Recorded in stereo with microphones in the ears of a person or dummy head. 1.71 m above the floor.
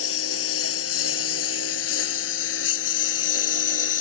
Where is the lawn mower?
80° left.